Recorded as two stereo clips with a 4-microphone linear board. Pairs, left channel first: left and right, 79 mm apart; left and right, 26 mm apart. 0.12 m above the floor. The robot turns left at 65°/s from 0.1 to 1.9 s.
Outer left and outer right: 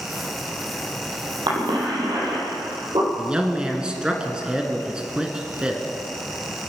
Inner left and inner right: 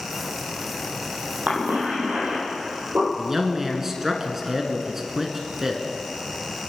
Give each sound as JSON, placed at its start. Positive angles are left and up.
{"t": 1.5, "sound": "a cough", "side_deg": -70, "distance_m": 4.5}
{"t": 3.2, "sound": "a man speaking", "side_deg": -10, "distance_m": 1.4}